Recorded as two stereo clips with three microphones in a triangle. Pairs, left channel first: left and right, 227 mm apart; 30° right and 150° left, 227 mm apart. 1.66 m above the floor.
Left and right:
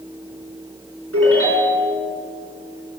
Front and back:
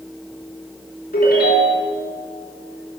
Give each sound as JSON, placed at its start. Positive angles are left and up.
{"t": 1.1, "sound": "a ringtone", "azimuth_deg": -75, "distance_m": 4.5}